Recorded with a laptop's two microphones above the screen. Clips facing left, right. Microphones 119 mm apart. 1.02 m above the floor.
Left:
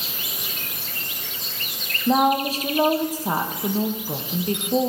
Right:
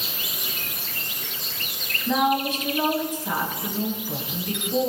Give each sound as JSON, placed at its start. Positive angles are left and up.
{"t": 2.1, "sound": "a woman speaking", "side_deg": 35, "distance_m": 1.1}